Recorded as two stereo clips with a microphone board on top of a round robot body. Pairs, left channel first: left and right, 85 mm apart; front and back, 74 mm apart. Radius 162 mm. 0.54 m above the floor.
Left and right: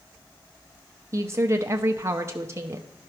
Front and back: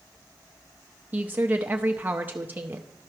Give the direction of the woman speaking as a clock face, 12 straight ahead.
4 o'clock.